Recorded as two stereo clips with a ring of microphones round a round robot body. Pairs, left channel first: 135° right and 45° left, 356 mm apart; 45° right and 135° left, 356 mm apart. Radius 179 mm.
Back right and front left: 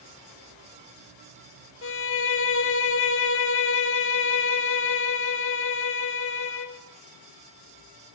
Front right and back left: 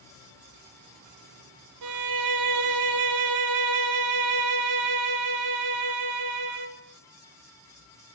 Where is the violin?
170° left, 1.2 m.